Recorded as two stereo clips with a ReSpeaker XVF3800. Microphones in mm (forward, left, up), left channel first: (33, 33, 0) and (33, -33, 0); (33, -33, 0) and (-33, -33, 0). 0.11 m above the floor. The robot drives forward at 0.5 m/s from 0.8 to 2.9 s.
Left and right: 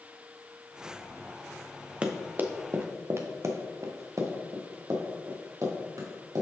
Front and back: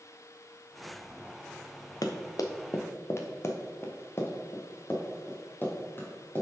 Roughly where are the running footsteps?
Ahead.